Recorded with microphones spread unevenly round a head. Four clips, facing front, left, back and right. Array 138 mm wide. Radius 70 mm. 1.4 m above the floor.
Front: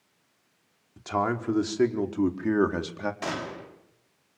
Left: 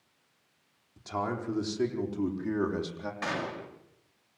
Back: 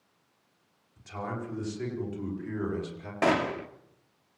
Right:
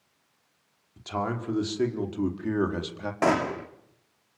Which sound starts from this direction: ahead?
A man speaking, at 1.0 s.